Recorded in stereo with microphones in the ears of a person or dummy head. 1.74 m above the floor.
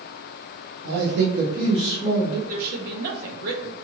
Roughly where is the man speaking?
Right.